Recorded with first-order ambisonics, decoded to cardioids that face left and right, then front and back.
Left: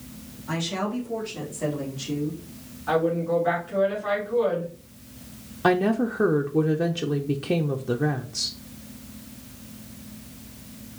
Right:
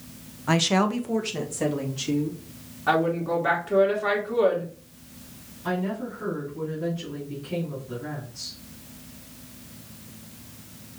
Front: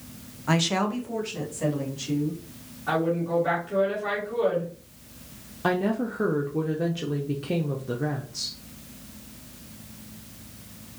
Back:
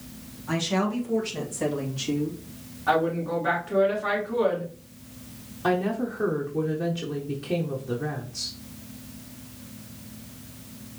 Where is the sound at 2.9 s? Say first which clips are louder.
Even, back 2 dB; 110° right, 2.5 m.